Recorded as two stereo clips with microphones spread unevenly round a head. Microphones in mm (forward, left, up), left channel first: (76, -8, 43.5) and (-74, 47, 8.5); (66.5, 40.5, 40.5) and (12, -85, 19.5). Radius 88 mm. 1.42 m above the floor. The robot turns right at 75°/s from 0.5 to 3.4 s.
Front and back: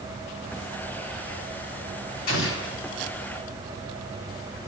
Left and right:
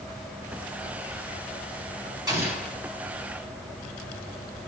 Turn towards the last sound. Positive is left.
turn(degrees=35)